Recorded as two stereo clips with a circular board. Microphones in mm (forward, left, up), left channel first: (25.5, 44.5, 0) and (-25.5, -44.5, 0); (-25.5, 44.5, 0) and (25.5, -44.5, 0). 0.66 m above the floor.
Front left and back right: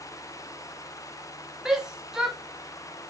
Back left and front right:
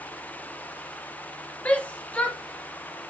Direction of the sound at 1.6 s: 165° left.